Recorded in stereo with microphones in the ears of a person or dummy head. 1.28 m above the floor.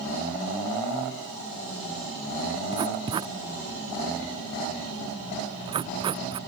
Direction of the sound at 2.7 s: 25° right (ahead or behind).